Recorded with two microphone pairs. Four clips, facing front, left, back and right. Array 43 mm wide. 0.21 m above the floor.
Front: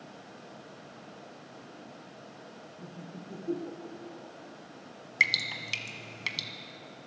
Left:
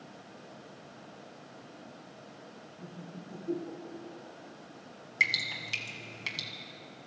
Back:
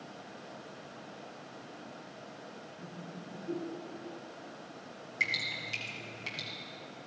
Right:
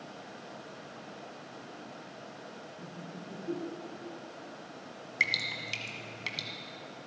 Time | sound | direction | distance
2.8 | laughter | straight ahead | 4.5 m
5.2 | dripping | 5° left | 1.5 m